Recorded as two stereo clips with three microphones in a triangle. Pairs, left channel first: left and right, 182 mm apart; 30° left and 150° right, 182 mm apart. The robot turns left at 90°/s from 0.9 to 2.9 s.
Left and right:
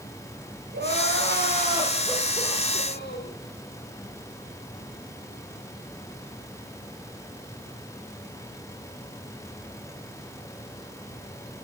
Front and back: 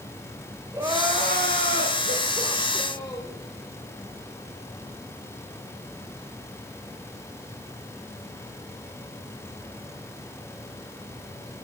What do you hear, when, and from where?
0.7 s crying: 75° right, 7 m; by 3.4 s 105° left, 7 m